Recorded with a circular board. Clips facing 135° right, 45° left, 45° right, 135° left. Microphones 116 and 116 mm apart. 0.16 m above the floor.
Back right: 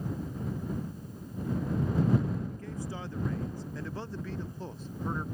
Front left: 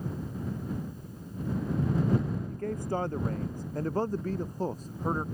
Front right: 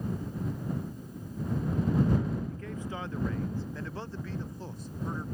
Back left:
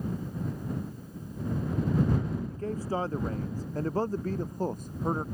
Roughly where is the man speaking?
Left.